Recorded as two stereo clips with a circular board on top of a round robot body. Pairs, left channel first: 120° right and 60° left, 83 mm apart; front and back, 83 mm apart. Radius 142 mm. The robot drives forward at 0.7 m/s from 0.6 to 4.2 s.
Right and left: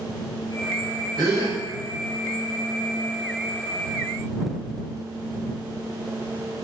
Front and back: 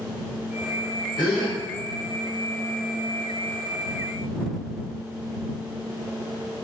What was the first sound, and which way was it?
A gasp, 30° left.